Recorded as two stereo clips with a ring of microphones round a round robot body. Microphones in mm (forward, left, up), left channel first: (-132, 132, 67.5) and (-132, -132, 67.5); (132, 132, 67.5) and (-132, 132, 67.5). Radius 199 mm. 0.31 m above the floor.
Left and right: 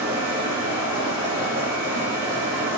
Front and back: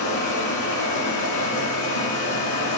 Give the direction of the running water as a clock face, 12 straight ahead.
12 o'clock.